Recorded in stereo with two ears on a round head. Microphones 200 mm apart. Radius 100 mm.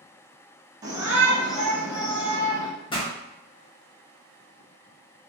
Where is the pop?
20° left (ahead or behind), 0.7 m.